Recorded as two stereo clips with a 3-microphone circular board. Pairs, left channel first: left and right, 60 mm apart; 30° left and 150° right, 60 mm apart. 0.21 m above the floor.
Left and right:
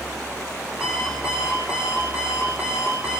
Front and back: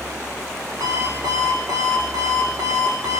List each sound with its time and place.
0.8 s an alarm clock: 165° right, 7 m